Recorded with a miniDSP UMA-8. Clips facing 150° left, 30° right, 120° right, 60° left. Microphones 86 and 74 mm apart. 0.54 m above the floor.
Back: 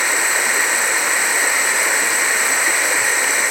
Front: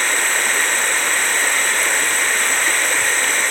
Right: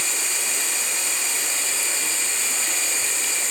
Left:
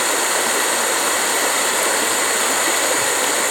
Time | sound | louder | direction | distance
0.0 | running water | back 1 dB, left 12 dB | 70° left | 0.8 m